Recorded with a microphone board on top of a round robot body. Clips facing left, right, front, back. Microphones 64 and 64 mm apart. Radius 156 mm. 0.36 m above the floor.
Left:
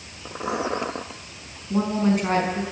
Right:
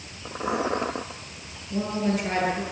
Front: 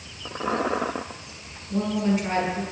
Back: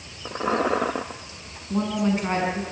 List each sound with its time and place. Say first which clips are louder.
1.7 s a woman speaking: left 4 dB, even; 125° left, 5.5 m